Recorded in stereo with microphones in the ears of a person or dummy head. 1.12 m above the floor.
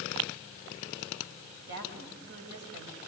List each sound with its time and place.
1.7 s a woman speaking: 55° right (ahead or behind), 7.5 m